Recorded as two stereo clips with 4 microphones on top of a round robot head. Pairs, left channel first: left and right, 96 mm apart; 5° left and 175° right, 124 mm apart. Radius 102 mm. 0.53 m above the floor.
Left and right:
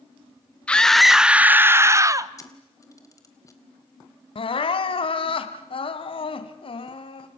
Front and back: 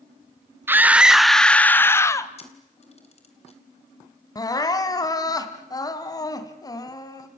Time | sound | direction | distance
0.7 | a scream | 150° left | 1.0 m
2.4 | a camera shutter | 35° left | 3.5 m
4.3 | crying | 65° left | 2 m